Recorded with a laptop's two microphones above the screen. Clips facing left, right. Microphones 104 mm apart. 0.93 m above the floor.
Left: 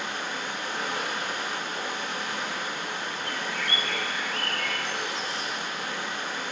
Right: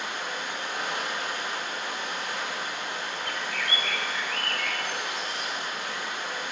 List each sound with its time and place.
0.0 s running water: 35° left (ahead or behind), 4.5 m
3.2 s a bird: 35° left (ahead or behind), 1.5 m